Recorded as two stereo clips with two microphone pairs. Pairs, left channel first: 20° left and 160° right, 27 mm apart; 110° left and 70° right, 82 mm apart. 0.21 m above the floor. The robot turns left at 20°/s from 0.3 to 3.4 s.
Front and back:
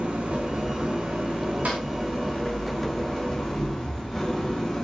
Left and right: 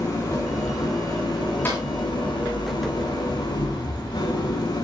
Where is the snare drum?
175° left, 9 m; by 1.8 s 170° left, 9 m.